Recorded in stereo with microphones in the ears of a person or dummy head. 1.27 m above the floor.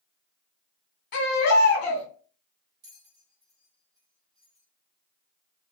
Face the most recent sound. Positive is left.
turn(degrees=-20)  # may be behind; listen again after turning